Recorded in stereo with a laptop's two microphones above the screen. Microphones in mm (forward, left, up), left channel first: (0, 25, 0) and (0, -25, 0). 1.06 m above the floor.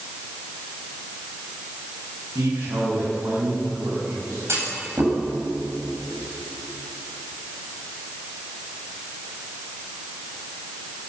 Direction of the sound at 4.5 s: 65° right (ahead or behind).